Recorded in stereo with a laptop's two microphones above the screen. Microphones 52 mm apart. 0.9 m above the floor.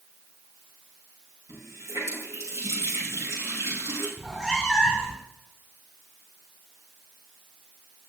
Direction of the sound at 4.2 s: Centre (ahead or behind).